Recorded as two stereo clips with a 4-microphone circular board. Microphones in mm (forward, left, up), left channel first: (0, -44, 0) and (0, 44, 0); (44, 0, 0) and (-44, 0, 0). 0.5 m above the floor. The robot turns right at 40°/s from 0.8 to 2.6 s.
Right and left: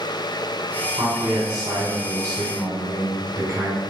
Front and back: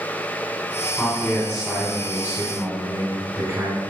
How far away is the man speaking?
About 1.7 m.